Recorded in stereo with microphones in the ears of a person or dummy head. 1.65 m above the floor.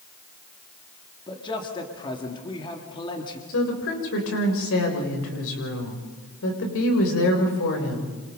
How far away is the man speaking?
About 3 m.